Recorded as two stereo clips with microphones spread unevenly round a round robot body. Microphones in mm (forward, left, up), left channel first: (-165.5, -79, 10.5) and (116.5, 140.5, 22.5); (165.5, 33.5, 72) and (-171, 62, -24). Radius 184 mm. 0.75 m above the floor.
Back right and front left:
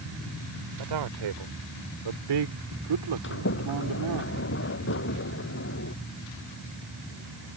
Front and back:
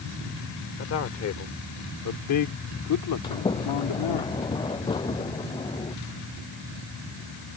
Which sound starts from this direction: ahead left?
A man speaking, at 0.8 s.